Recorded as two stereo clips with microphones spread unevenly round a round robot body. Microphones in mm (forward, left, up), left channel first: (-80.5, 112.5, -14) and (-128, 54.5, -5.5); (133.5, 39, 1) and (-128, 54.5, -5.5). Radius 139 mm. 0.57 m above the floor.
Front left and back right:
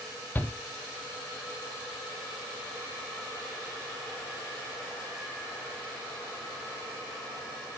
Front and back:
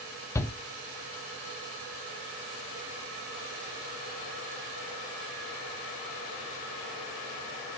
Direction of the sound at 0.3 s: 70° left.